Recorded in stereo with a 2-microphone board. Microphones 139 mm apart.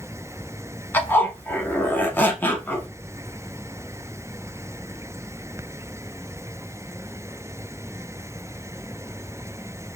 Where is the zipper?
15° left (ahead or behind), 0.6 m.